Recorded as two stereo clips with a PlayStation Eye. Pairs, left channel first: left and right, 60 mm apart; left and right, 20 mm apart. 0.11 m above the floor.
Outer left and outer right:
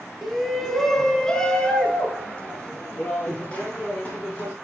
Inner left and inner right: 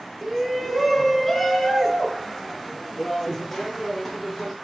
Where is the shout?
Centre (ahead or behind), 1.5 m; by 4.5 s 20° left (ahead or behind), 3.5 m.